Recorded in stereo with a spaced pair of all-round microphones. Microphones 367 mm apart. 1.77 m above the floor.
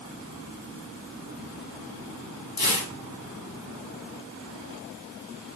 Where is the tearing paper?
75° left (ahead or behind), 2 m.